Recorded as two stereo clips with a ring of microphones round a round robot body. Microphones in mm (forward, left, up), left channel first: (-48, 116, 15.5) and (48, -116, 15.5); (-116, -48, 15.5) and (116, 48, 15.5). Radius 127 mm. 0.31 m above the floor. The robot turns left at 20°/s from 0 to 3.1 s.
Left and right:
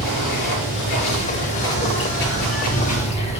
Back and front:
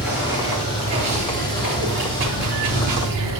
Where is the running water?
110° left, 4 m; by 3.4 s 45° left, 4 m.